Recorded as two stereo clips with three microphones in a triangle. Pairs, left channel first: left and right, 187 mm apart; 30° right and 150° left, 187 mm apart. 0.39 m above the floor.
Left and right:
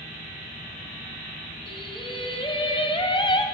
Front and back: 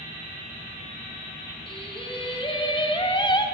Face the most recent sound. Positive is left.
turn(degrees=30)